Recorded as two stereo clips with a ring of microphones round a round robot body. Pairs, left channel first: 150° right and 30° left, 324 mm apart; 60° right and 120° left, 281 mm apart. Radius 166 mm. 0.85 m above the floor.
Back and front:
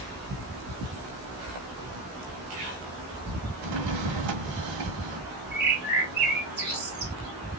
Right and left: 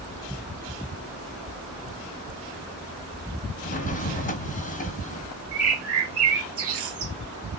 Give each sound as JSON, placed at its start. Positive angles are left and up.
{"t": 3.6, "sound": "a drawer", "azimuth_deg": 0, "distance_m": 1.5}
{"t": 5.5, "sound": "a bird", "azimuth_deg": 90, "distance_m": 2.0}